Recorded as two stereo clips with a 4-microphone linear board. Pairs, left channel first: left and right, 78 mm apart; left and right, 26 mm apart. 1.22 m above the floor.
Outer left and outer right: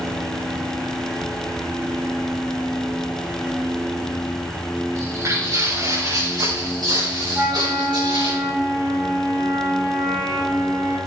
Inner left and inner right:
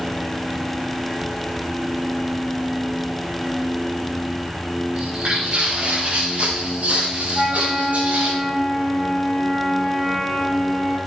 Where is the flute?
30° right (ahead or behind), 8 m.